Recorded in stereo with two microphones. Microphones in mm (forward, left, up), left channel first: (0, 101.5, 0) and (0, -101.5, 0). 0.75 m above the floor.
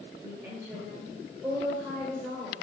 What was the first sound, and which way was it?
A woman speaking, 10° right (ahead or behind).